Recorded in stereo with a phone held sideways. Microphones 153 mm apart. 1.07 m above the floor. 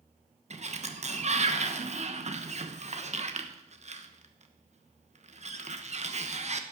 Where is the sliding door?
45° right (ahead or behind), 1.1 m.